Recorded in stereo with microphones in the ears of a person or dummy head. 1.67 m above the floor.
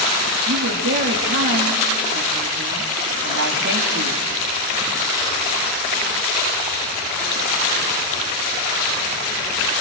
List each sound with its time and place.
0.5 s a woman speaking: 50° right (ahead or behind), 3 m